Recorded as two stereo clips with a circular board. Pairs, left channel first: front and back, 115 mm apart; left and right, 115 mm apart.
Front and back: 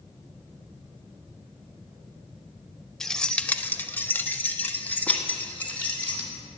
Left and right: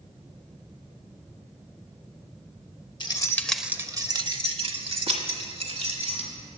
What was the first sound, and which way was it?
Keys jangling, 85° left.